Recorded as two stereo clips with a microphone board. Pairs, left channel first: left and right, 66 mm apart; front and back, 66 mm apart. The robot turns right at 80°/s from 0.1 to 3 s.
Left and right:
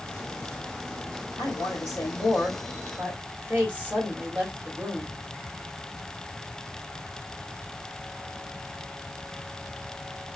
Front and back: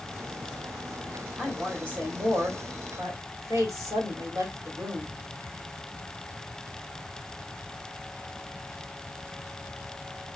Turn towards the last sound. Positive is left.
turn(degrees=-150)